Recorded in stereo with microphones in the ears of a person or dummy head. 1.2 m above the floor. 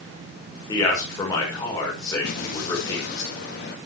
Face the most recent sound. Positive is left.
turn(degrees=55)  # may be behind; listen again after turning